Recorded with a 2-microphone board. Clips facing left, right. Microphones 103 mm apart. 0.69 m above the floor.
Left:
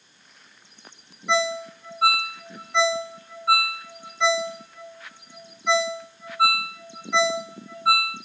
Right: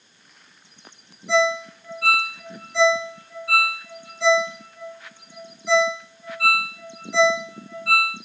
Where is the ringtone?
85° left, 2.5 m.